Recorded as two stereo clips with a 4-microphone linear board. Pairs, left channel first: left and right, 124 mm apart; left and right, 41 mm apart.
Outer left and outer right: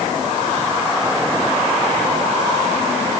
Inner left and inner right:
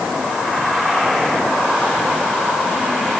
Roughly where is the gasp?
No gasp in this recording.